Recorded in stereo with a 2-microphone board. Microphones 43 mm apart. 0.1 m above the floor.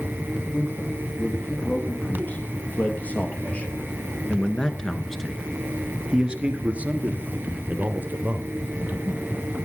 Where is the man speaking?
45° left (ahead or behind), 4 m; by 9.3 s 50° right (ahead or behind), 3.5 m.